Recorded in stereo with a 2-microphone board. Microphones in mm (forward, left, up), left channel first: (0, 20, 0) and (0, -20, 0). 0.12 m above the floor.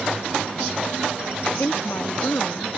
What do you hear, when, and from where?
1.6 s a woman speaking: 70° left (ahead or behind)